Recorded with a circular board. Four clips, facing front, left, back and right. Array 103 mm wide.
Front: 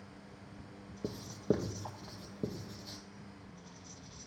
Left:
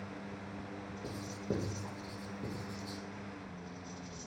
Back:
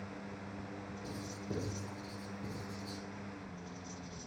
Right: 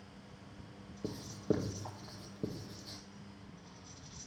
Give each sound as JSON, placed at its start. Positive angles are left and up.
{"t": 1.0, "sound": "writing", "azimuth_deg": -20, "distance_m": 1.9}